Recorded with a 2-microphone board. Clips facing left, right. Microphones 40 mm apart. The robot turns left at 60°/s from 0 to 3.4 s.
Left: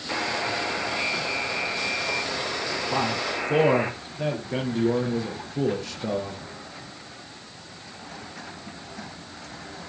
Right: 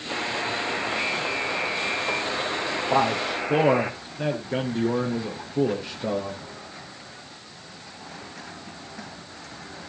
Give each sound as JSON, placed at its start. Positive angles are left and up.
{"t": 0.1, "sound": "a buzzer", "azimuth_deg": 20, "distance_m": 5.5}
{"t": 2.9, "sound": "a man speaking", "azimuth_deg": -135, "distance_m": 5.5}